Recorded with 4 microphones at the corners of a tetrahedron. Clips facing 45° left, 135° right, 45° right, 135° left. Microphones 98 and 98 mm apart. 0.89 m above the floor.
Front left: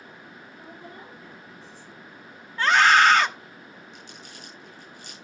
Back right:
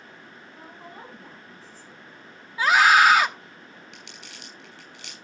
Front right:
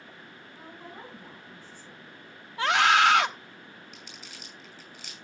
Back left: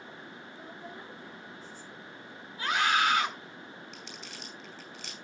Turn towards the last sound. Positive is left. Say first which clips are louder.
# front left 1 dB, back left 2 dB
turn(degrees=-130)